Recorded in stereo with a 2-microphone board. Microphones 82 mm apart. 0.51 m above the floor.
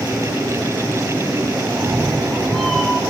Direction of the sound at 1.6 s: 20° right (ahead or behind).